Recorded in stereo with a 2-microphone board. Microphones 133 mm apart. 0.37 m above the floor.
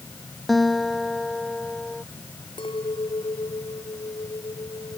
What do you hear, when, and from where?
0.5 s a guitar: centre (ahead or behind)
2.6 s a clink: 40° left (ahead or behind)